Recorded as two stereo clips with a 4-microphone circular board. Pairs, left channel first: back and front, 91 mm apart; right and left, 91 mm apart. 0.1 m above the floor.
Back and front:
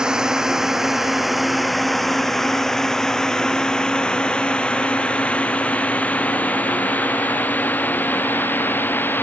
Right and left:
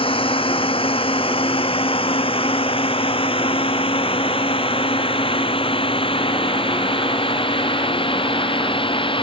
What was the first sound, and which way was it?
A drone, 80° right.